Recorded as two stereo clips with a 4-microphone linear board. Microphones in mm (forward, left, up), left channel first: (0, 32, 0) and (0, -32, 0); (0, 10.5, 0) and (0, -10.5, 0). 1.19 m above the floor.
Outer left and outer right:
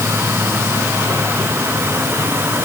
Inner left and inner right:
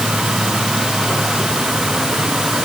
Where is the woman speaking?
No woman speaking in this recording.